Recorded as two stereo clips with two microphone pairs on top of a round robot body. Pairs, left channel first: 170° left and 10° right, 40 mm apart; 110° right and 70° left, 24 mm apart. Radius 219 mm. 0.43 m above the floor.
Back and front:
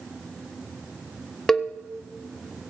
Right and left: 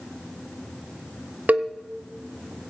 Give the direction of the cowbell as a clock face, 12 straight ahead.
9 o'clock.